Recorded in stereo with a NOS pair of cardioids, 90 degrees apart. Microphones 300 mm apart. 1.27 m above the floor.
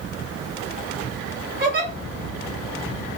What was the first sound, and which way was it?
A giggle, 35° right.